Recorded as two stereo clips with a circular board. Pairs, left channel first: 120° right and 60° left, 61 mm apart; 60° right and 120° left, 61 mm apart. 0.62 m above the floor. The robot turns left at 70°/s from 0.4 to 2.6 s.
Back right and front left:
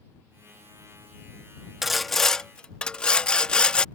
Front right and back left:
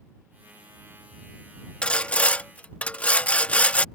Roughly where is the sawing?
Ahead.